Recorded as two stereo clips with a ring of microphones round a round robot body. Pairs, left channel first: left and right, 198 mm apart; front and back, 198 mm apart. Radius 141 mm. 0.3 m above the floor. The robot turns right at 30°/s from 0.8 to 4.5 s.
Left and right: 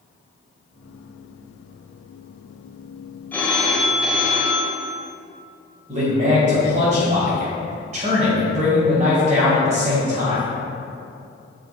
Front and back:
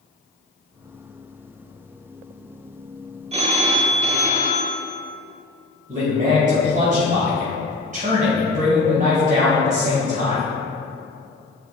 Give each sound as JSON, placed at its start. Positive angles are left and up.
{"t": 3.3, "sound": "a phone ringing", "azimuth_deg": 165, "distance_m": 0.7}
{"t": 5.9, "sound": "a man speaking", "azimuth_deg": -140, "distance_m": 2.0}